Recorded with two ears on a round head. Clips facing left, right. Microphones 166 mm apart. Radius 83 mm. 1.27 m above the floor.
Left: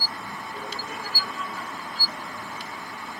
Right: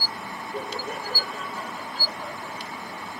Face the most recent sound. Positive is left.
turn(degrees=-45)  # may be behind; listen again after turning